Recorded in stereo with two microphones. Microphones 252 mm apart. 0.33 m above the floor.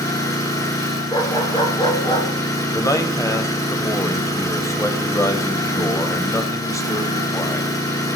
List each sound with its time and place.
0.0 s an engine running: 15° left (ahead or behind), 4.5 m
1.1 s a dog barking: 20° left (ahead or behind), 1.6 m
2.7 s a man speaking: 15° left (ahead or behind), 1.3 m